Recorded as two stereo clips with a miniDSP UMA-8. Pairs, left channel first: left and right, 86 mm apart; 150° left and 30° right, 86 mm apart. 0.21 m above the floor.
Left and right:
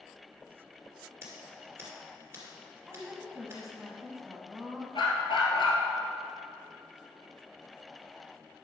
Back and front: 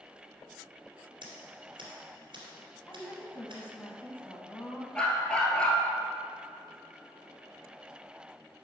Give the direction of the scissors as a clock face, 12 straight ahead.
1 o'clock.